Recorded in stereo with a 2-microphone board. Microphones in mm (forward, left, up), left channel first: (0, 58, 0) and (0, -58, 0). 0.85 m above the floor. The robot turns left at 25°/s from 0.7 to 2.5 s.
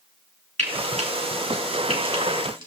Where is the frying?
75° right (ahead or behind), 2 m; by 2.7 s 45° right (ahead or behind), 2 m.